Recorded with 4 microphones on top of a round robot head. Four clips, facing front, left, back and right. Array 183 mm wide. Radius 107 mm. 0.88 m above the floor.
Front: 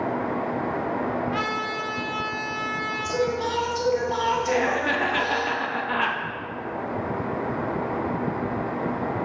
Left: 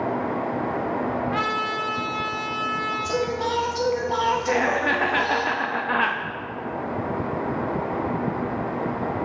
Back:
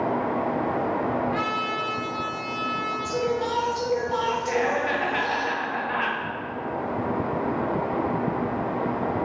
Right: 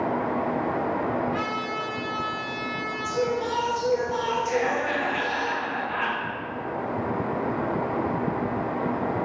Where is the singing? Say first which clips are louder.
Right 1 dB, front 2 dB; 80° left, 1.7 m.